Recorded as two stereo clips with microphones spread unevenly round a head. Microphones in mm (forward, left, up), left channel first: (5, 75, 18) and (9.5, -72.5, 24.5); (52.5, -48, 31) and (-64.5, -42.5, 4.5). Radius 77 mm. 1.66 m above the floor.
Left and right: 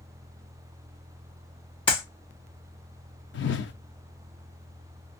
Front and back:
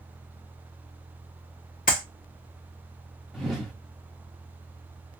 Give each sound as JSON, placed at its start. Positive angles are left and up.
{"t": 1.9, "sound": "a clap", "azimuth_deg": 35, "distance_m": 1.9}
{"t": 3.3, "sound": "a whoosh", "azimuth_deg": 90, "distance_m": 0.7}